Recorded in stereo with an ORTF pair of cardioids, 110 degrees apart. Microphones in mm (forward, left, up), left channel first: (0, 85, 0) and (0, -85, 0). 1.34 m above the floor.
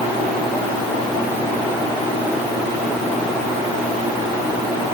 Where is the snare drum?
I don't hear a snare drum.